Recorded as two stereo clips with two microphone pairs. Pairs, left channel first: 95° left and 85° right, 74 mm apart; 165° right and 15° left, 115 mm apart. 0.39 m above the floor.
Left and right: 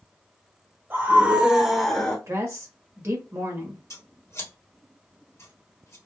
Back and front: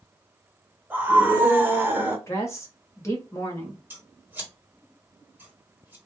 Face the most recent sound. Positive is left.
turn(degrees=80)